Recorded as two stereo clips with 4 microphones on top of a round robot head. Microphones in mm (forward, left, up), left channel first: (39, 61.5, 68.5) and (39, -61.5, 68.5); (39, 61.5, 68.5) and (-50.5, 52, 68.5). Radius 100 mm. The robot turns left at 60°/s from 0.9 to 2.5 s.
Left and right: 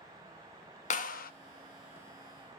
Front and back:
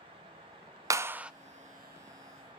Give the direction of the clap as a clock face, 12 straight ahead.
8 o'clock.